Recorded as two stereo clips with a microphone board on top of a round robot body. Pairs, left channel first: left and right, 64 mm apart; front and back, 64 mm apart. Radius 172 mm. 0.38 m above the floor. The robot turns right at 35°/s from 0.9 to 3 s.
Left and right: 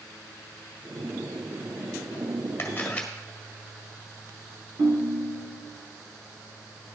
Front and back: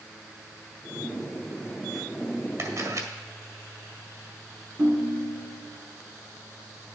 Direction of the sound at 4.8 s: 115° right.